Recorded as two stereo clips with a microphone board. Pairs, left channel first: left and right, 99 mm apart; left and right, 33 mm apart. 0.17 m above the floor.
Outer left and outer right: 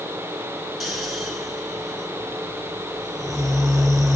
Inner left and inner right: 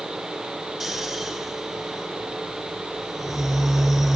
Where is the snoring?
Centre (ahead or behind), 2.5 m.